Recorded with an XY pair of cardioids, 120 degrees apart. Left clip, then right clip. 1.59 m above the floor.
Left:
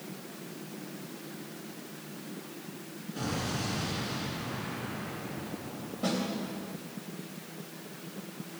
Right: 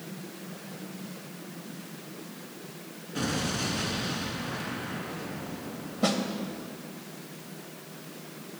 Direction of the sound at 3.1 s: 50° right.